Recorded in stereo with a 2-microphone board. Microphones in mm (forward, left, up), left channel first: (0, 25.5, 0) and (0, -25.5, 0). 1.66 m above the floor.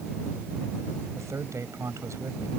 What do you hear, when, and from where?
1.1 s a man speaking: 70° right (ahead or behind)